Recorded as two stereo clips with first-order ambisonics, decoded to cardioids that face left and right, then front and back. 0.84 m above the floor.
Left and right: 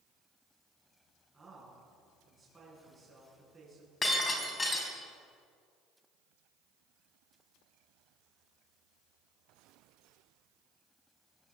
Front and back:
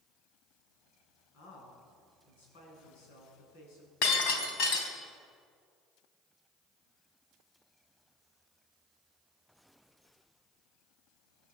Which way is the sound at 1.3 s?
10° right.